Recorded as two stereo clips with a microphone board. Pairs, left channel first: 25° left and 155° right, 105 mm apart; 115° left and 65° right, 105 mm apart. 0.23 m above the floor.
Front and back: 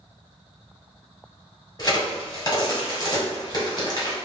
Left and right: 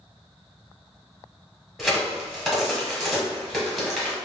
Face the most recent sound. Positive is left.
turn(degrees=20)